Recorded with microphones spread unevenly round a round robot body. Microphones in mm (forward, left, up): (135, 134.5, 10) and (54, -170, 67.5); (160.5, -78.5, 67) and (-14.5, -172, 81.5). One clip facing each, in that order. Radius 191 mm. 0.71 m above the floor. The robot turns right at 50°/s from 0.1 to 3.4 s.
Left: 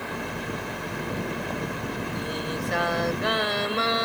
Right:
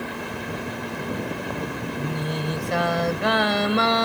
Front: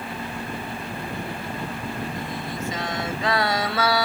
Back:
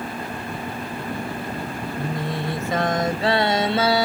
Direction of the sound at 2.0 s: 160° right.